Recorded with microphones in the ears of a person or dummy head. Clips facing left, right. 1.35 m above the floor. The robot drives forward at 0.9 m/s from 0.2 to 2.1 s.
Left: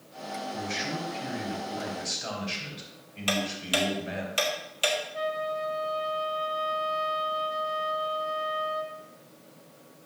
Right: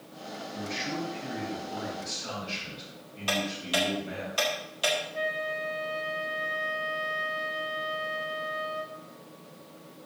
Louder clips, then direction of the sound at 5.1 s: Left 2 dB; centre (ahead or behind).